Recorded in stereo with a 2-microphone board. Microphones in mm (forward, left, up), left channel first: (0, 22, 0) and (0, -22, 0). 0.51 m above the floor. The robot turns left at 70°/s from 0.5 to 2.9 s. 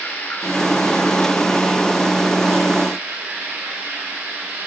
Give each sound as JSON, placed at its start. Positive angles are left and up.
{"t": 0.0, "sound": "running water", "azimuth_deg": 95, "distance_m": 7.0}